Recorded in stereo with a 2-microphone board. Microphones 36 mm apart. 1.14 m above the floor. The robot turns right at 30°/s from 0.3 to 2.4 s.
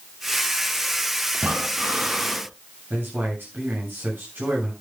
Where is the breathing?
45° right, 4 m; by 2.5 s 15° right, 4 m.